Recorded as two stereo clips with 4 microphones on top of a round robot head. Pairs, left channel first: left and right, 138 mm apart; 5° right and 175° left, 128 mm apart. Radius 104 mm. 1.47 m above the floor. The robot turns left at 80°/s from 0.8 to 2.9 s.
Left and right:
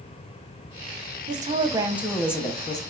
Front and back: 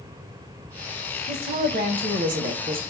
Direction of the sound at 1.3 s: 115° right.